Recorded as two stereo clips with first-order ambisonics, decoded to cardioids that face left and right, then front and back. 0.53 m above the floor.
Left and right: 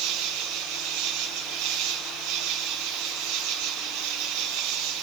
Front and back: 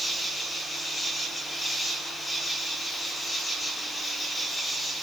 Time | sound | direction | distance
0.0 | an insect | 80° right | 3 m